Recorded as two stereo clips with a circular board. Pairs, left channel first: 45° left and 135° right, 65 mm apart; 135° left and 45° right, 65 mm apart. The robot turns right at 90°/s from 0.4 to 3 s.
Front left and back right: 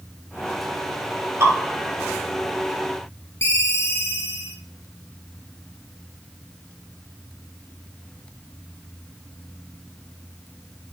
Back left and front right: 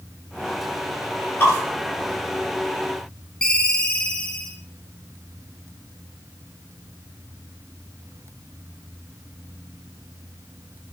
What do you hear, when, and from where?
1.4 s dripping: 170° right, 3.5 m; by 1.5 s 160° right, 3.5 m
3.4 s a ringtone: 65° left, 1.1 m